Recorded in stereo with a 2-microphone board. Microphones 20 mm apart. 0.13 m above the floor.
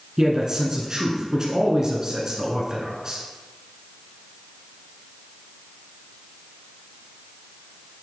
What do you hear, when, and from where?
0.2 s a man speaking: 35° right (ahead or behind), 1.4 m